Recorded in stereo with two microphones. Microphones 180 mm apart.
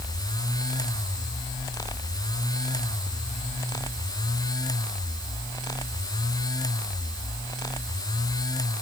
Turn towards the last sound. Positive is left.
No sound to turn to.